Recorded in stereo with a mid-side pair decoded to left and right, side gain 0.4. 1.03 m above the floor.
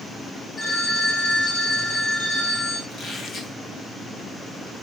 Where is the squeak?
65° left, 2.5 m.